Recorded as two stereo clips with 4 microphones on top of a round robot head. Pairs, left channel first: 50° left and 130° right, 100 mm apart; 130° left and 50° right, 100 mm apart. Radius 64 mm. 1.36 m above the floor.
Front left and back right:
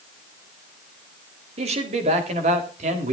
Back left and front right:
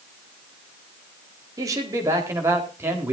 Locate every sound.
1.6 s a man speaking: 110° right, 4 m; by 3.1 s 125° right, 3.5 m